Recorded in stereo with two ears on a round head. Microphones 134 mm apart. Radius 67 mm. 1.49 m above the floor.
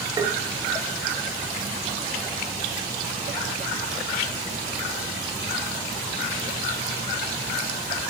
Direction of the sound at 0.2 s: 25° right (ahead or behind).